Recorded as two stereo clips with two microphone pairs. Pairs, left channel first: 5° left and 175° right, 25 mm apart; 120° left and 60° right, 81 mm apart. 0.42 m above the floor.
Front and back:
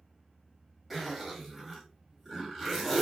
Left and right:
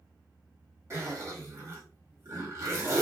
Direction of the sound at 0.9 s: 85° right.